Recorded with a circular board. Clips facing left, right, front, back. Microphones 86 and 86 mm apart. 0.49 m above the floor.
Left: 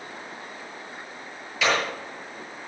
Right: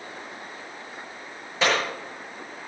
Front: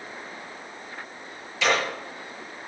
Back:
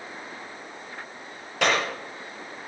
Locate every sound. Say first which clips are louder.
1.6 s a clap: even, even; 150° right, 8 m